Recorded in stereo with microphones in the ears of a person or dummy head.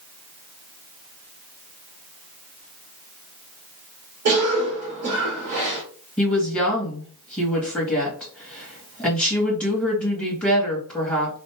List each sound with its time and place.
4.2 s a cough: 50° right (ahead or behind), 1.6 m
6.2 s a woman speaking: 10° left (ahead or behind), 2.5 m